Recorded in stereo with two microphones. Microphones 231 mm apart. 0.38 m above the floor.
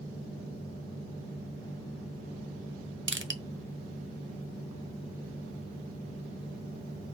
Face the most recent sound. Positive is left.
turn(degrees=-55)  # may be behind; listen again after turning